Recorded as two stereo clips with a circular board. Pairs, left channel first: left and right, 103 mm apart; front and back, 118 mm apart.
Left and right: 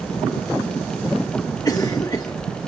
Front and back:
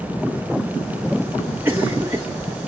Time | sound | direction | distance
1.6 | a cough | 120° left | 1.0 m